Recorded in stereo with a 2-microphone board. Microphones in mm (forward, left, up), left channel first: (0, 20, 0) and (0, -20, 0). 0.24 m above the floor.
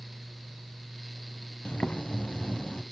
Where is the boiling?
35° left (ahead or behind), 0.7 m.